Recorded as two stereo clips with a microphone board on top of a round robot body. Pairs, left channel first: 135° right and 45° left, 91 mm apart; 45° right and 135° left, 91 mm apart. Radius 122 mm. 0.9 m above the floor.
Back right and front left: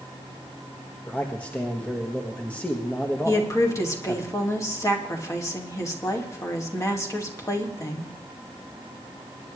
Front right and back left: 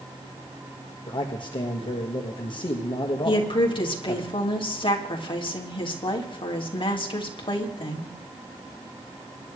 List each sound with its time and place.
1.1 s a man speaking: 65° right, 1.5 m
3.2 s a woman speaking: 75° right, 2.5 m